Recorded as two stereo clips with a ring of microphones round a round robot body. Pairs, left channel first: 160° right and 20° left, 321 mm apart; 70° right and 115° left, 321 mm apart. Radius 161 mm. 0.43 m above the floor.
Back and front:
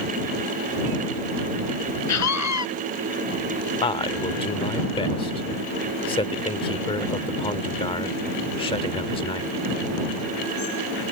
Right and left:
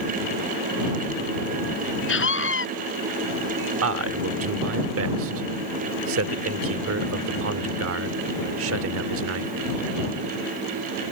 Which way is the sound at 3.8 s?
135° left.